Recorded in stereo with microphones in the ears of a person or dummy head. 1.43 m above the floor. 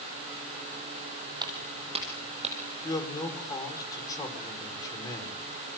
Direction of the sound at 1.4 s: 25° right (ahead or behind).